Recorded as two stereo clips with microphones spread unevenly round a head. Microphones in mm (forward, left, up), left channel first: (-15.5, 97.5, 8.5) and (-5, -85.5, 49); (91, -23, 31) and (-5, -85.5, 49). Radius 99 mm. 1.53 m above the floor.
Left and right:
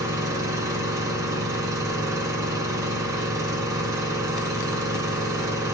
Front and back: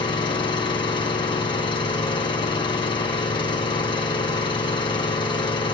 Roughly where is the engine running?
Ahead.